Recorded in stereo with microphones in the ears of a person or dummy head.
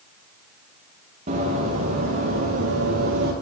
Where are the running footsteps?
35° right (ahead or behind), 6 m; by 3.3 s 45° right (ahead or behind), 5.5 m.